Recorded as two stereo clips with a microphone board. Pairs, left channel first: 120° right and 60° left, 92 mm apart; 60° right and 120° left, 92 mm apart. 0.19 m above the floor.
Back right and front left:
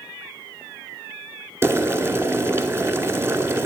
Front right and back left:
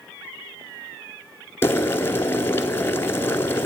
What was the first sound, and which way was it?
Boiling, straight ahead.